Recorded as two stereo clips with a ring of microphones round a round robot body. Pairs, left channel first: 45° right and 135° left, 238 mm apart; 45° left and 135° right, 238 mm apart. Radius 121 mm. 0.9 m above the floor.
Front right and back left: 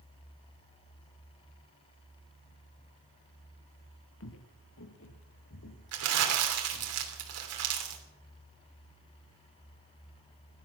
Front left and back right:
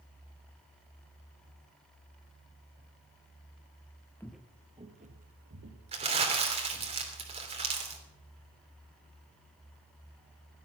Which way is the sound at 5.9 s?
160° left.